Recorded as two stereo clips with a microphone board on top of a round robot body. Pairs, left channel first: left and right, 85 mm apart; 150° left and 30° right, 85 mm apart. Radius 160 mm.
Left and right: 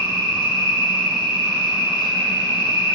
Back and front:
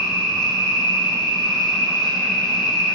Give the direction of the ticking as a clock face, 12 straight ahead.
I don't hear ticking.